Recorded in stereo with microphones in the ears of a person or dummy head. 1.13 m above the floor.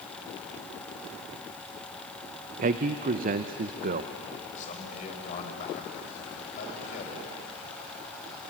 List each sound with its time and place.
2.6 s a man speaking: 40° right (ahead or behind), 0.6 m
4.6 s a man speaking: 40° left (ahead or behind), 5 m